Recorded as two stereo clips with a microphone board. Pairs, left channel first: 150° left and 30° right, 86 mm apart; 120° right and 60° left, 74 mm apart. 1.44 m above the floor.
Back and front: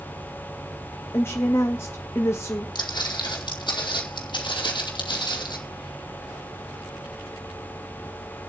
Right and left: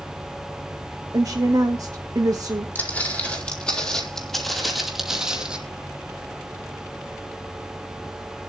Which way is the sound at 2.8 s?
175° left.